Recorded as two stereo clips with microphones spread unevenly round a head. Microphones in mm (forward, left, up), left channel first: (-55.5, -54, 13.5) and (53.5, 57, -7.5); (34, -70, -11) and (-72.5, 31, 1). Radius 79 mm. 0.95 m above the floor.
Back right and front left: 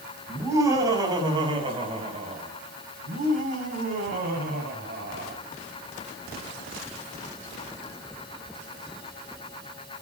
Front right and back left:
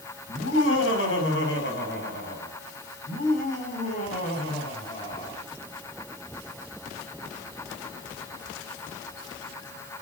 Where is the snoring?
I don't hear snoring.